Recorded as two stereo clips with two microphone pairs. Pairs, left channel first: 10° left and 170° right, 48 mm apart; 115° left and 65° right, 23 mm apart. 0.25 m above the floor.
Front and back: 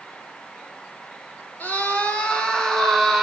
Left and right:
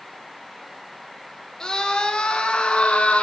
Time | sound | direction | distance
1.6 | a scream | 60° left | 3.5 m